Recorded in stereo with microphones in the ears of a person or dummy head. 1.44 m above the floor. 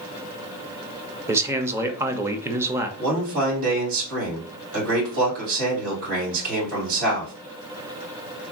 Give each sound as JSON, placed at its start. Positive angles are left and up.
{"t": 1.3, "sound": "a man speaking", "side_deg": -20, "distance_m": 0.6}
{"t": 3.0, "sound": "a man speaking", "side_deg": -80, "distance_m": 2.5}